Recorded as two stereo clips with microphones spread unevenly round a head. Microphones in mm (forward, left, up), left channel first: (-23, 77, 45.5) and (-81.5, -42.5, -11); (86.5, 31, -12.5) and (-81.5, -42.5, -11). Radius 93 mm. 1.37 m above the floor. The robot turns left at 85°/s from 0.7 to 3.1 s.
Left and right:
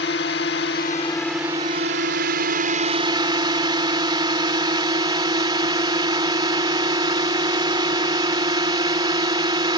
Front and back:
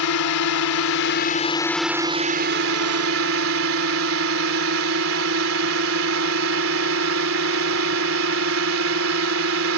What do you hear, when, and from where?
0.0 s a drone: 30° left; by 9.8 s 175° right